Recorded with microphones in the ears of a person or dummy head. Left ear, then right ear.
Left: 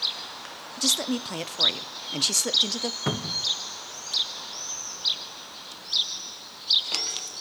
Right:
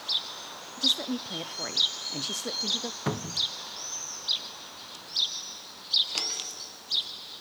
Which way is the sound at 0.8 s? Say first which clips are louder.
Left 1 dB; 25° left (ahead or behind).